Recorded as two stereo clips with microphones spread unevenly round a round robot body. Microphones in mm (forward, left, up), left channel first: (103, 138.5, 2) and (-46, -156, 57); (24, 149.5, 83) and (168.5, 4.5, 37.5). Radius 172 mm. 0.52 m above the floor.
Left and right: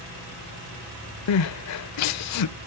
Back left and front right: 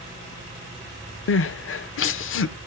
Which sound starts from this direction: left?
Crying, at 1.3 s.